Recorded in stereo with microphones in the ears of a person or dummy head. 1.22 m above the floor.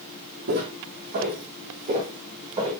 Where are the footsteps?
50° right (ahead or behind), 3 m; by 2.7 s 25° right (ahead or behind), 3 m.